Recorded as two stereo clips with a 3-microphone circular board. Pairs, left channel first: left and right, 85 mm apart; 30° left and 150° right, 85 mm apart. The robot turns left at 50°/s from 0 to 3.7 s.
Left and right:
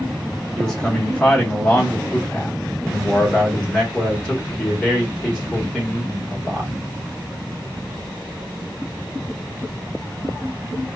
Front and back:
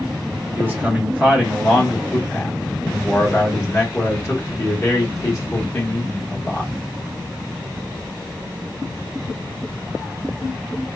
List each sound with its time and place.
0.6 s a man speaking: 175° left, 1.0 m; by 6.7 s 20° left, 1.0 m